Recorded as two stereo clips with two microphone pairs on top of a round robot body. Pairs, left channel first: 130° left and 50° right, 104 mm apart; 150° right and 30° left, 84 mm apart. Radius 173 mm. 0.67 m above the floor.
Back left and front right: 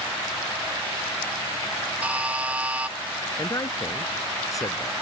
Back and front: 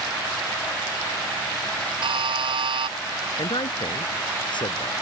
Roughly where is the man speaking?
Behind.